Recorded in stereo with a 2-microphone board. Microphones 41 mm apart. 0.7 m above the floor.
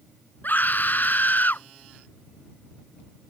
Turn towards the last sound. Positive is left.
turn(degrees=45)  # may be behind; listen again after turning